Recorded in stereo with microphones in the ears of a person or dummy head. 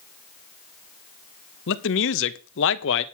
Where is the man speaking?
65° left (ahead or behind), 1.1 m.